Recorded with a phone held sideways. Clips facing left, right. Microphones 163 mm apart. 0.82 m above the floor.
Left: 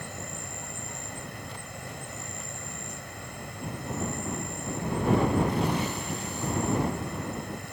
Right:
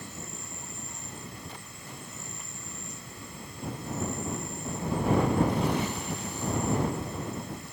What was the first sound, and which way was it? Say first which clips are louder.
An insect: left 3 dB; 65° left (ahead or behind).